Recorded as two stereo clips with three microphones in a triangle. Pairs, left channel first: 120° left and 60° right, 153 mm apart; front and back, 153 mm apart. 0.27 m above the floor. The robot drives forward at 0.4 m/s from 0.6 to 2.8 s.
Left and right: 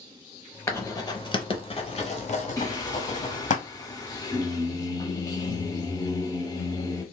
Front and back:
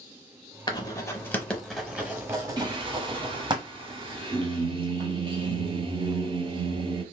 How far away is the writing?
About 0.8 m.